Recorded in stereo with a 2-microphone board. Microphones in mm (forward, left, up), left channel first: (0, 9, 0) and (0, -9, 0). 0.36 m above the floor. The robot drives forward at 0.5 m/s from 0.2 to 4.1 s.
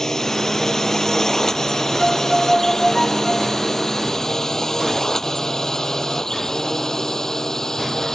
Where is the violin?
20° left (ahead or behind); by 3.6 s 30° left (ahead or behind).